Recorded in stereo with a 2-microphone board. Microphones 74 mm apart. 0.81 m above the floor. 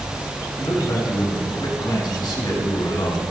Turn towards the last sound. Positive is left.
turn(degrees=80)